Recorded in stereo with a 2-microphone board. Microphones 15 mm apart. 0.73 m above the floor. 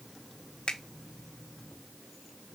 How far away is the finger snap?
About 1.3 m.